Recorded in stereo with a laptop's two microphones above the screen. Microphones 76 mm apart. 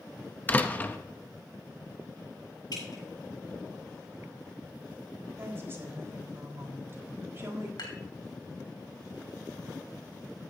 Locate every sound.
0.5 s a door slam: 20° left (ahead or behind), 0.6 m
2.7 s dripping: 60° left (ahead or behind), 7 m
5.4 s a woman speaking: 35° right (ahead or behind), 4 m
7.8 s dishes clattering: 70° left (ahead or behind), 3.5 m